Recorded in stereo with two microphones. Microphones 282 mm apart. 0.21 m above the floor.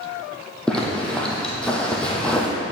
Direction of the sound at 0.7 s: 5° left (ahead or behind).